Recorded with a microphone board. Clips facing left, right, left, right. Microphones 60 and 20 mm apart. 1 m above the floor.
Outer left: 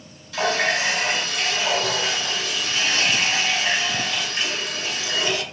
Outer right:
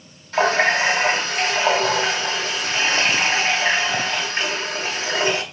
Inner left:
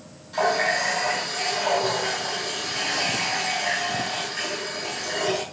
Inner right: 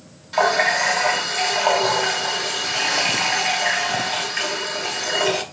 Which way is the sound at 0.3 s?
45° right (ahead or behind).